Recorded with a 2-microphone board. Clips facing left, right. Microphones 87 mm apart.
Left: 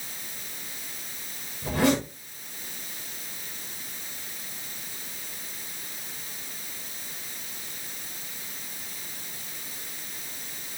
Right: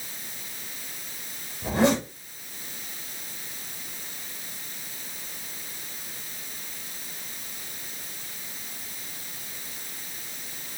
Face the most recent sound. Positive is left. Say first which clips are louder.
# right 1 dB
turn(degrees=-20)  # may be behind; listen again after turning